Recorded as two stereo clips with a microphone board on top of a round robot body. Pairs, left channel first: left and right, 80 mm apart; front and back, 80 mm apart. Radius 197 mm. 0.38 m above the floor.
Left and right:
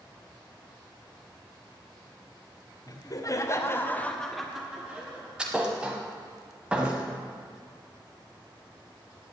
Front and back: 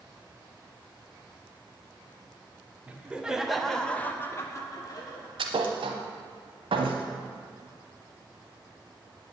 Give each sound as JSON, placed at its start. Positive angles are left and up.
{"t": 2.9, "sound": "laughter", "azimuth_deg": 110, "distance_m": 2.0}
{"t": 5.4, "sound": "a thud", "azimuth_deg": -170, "distance_m": 0.9}